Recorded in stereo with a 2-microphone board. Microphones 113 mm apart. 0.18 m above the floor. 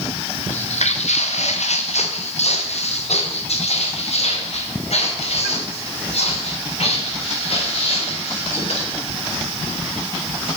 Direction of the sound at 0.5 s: 80° left.